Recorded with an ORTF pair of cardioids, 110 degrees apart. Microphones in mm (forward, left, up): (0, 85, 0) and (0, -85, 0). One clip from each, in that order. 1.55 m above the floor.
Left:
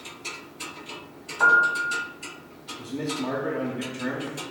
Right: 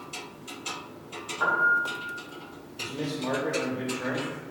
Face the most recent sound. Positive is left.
turn(degrees=10)